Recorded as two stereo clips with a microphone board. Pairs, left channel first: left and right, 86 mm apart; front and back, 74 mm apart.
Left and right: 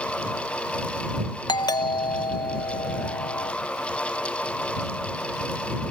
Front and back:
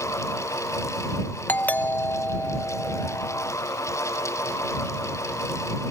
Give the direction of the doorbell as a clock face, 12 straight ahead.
10 o'clock.